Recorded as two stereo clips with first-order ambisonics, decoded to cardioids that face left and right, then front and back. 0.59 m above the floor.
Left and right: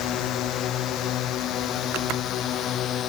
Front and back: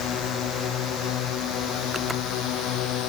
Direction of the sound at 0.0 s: 45° left.